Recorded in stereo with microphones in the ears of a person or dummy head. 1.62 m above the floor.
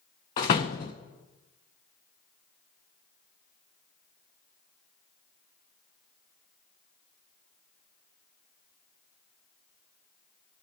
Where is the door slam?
20° left (ahead or behind), 0.7 m.